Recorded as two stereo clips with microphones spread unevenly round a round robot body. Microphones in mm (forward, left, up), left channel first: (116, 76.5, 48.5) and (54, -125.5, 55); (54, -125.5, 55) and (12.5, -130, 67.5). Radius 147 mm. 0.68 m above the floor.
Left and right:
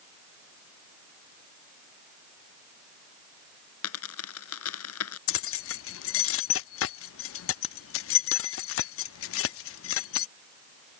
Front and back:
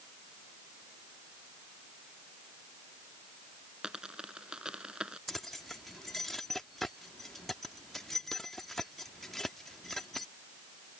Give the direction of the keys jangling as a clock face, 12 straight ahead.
9 o'clock.